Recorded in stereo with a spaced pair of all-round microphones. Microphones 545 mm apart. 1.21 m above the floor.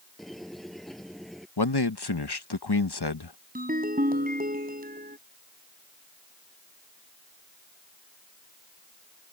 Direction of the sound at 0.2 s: Centre (ahead or behind).